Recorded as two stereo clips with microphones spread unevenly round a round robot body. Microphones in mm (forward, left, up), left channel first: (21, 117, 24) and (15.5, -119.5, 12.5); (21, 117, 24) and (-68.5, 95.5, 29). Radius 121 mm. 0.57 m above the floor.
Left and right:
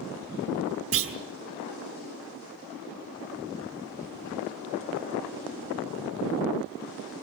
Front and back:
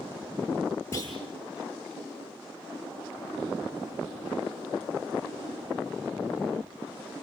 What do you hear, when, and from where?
0.9 s a clunk: 65° right, 3 m